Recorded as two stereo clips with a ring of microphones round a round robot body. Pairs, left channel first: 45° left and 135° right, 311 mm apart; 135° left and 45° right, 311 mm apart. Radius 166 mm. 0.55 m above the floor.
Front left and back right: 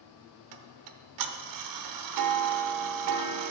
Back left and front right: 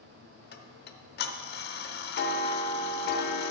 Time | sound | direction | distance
0.5 | ticking | 165° right | 0.7 m